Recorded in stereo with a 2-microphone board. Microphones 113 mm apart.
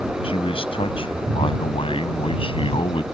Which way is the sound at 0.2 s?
60° left (ahead or behind).